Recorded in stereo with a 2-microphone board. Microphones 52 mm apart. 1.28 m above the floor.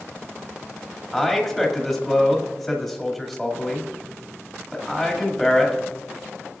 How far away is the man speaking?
About 2 m.